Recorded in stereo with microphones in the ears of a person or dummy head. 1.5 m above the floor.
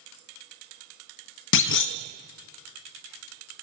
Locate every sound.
1.5 s a clunk: 65° left (ahead or behind), 0.6 m